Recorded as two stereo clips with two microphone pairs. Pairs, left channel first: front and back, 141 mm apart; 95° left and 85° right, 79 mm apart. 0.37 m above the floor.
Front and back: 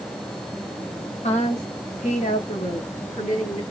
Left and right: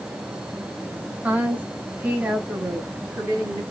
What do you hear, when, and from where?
1.2 s a woman speaking: 15° right, 1.4 m